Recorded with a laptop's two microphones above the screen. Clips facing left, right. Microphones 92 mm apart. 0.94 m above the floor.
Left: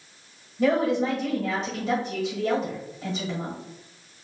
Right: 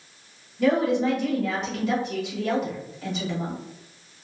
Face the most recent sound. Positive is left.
turn(degrees=25)  # may be behind; listen again after turning